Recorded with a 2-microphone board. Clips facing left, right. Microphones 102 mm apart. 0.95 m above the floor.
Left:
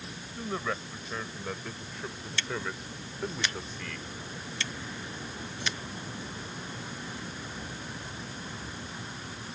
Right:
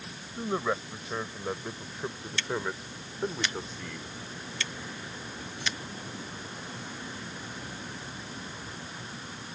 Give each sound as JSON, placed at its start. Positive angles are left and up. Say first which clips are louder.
{"t": 0.4, "sound": "a man speaking", "louder": "right 4 dB", "side_deg": -20}